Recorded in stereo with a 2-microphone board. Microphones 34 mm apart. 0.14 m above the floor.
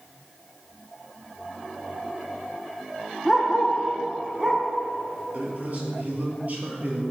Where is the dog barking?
10° right (ahead or behind), 1.5 m; by 4.6 s 20° right (ahead or behind), 2.5 m.